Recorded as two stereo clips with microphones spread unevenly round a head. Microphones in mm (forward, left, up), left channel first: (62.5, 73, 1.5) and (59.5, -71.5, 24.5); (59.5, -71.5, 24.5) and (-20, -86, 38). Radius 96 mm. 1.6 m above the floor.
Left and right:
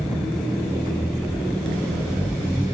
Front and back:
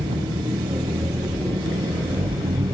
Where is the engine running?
Straight behind.